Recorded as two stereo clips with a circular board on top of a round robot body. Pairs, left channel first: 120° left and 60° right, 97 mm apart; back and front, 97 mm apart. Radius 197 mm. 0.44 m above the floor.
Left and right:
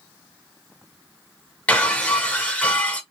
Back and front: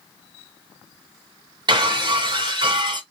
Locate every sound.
1.7 s breaking glass: 45° left, 1.2 m